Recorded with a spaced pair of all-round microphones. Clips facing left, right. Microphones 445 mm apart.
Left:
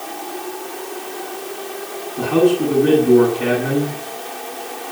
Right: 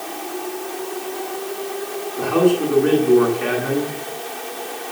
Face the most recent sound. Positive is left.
turn(degrees=50)  # may be behind; listen again after turning